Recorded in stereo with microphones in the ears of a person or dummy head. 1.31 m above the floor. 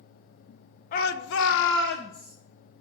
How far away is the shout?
About 1.2 m.